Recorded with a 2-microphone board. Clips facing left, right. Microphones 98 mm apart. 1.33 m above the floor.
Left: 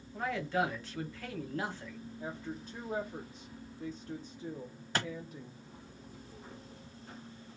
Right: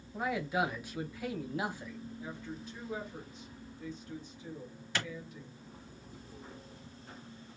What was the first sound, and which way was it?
A man speaking, 10° right (ahead or behind).